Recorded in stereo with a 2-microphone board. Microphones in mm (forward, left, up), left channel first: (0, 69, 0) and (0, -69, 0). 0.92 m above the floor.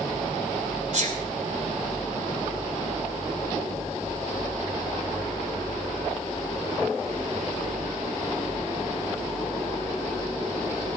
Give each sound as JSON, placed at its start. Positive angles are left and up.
{"t": 0.9, "sound": "a sneeze", "side_deg": -60, "distance_m": 3.0}